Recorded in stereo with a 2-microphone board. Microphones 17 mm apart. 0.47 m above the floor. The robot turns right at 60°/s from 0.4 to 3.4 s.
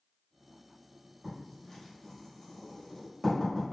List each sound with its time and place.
1.2 s writing: 5° left (ahead or behind), 1.5 m; by 3.7 s 20° left (ahead or behind), 1.5 m